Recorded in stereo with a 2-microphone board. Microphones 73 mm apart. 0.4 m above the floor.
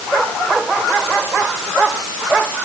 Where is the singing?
I don't hear singing.